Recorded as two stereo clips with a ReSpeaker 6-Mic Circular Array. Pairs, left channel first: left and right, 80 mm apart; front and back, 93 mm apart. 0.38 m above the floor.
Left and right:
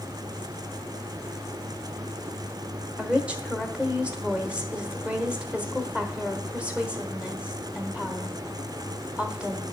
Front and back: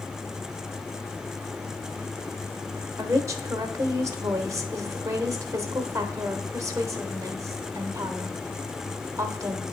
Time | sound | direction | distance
3.0 | a woman speaking | 155° right | 1.1 m